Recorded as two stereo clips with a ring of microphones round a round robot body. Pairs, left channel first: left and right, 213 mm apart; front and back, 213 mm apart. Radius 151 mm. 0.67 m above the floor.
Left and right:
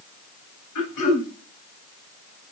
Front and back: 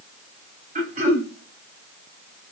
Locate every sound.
0.8 s throat clearing: 125° left, 1.9 m